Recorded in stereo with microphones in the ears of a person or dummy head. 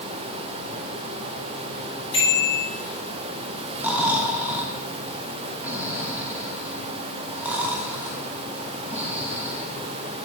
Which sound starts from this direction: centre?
Snoring, at 3.8 s.